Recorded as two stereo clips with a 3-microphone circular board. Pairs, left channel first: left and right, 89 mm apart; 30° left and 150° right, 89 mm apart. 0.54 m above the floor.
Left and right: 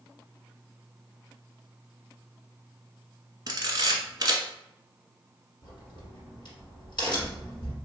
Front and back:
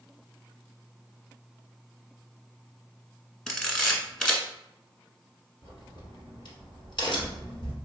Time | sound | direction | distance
3.5 | a camera shutter | 55° right | 0.8 m
5.6 | a crack | 60° left | 1.9 m